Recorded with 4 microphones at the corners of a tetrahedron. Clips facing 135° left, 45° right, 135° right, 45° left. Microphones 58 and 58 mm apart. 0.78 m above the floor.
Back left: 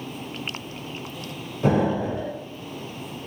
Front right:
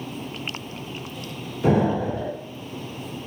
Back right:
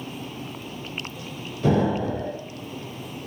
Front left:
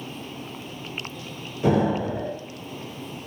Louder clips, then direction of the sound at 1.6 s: Front right 1 dB, even; 115° left.